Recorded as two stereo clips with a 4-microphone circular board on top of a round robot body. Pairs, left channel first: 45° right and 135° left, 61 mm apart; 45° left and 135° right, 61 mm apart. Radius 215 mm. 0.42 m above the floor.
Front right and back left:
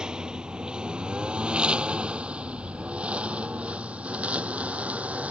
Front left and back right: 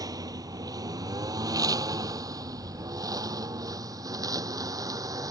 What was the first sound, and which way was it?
A lawn mower, 145° right.